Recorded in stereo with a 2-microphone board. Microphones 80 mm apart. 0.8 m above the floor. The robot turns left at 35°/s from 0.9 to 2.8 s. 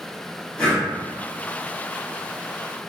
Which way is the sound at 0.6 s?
15° left (ahead or behind).